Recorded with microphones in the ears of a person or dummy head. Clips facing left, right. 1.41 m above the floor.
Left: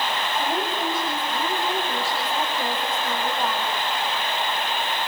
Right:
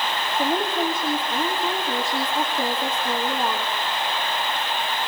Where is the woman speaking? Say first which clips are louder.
Right 6 dB; 15° right (ahead or behind), 3 m.